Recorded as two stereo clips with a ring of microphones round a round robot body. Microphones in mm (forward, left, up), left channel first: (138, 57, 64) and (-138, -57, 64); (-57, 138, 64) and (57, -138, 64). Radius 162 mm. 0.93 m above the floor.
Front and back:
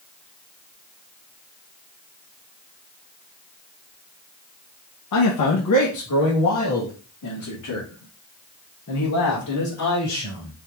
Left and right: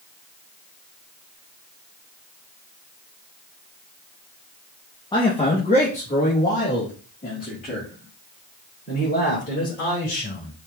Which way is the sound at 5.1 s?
40° left.